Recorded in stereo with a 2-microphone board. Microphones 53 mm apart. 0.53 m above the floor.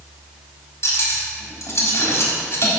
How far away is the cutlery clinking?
About 1.6 m.